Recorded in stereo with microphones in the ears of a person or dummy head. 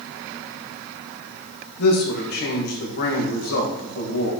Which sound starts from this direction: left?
A man speaking, at 1.8 s.